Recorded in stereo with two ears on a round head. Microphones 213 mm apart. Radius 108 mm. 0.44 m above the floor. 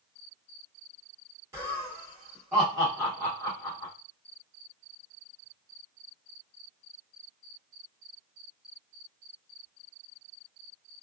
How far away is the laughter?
About 1.3 m.